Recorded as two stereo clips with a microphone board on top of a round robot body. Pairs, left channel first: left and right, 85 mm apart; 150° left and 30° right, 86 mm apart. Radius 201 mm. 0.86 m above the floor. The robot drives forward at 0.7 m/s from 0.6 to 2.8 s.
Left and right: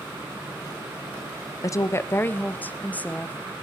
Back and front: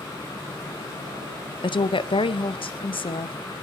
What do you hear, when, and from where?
1.6 s a woman speaking: 135° left, 0.7 m; by 3.4 s 160° left, 1.4 m